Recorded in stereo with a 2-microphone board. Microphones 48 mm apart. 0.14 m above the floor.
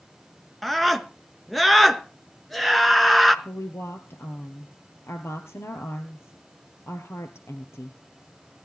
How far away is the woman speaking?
About 2.5 m.